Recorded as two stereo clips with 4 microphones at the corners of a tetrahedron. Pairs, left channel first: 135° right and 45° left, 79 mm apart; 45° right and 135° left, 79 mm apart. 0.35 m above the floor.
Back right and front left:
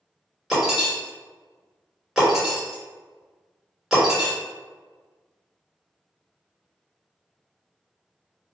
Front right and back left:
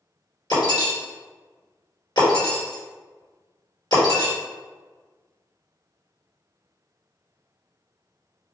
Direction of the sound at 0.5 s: 40° right.